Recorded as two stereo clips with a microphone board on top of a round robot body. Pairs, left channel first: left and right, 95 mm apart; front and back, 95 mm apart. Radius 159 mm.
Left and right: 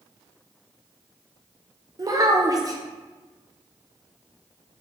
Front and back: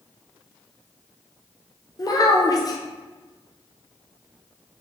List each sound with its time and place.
2.0 s a child speaking: 45° right, 1.0 m